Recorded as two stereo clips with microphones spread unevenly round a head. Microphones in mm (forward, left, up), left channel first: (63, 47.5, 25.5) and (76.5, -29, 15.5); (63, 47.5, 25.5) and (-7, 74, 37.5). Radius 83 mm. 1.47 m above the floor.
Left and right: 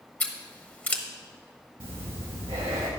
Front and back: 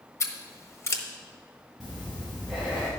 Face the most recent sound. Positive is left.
turn(degrees=-115)